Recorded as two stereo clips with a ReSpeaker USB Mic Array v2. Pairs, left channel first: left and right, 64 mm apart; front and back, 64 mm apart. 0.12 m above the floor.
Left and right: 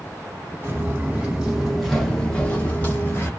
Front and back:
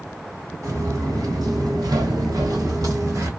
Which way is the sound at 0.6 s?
150° right.